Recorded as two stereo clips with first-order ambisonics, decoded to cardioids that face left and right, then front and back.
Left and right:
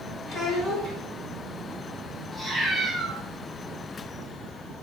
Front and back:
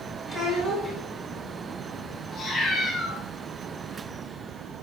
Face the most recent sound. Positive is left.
turn(degrees=15)